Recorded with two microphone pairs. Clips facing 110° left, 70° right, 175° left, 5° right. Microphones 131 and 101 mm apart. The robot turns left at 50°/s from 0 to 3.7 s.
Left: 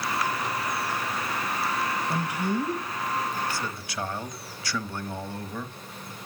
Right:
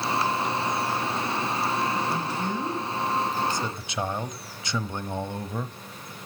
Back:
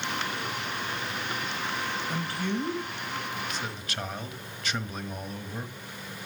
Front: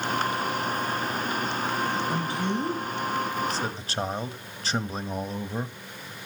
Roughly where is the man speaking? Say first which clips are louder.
Left 1 dB, front 3 dB; ahead left.